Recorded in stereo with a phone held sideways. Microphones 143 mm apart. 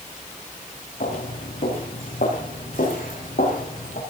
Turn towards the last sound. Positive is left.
turn(degrees=80)